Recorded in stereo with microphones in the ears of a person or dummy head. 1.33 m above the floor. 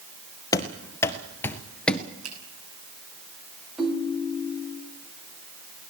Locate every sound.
0.5 s running footsteps: 20° left (ahead or behind), 2 m; by 2.1 s 5° left (ahead or behind), 1.4 m
2.2 s a finger snap: 85° right, 9 m
3.8 s a ringtone: centre (ahead or behind), 3.5 m